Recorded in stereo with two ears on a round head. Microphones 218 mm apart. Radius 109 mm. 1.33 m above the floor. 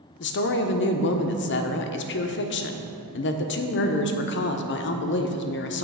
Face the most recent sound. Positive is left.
turn(degrees=50)  # may be behind; listen again after turning